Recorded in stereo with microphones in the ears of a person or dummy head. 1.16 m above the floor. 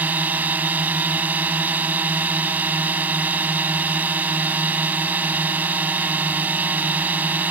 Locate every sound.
0.0 s a drone: 10° right (ahead or behind)